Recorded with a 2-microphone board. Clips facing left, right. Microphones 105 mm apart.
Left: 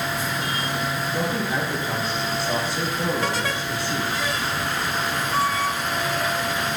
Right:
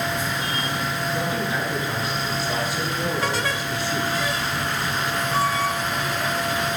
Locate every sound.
1.1 s a man speaking: 35° left (ahead or behind), 4 m